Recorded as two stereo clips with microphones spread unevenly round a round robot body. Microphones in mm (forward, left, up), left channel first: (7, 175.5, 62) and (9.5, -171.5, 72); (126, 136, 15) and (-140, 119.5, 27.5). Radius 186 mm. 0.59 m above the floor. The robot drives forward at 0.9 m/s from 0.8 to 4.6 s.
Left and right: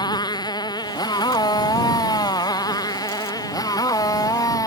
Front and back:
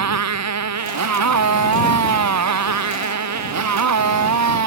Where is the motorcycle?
170° left.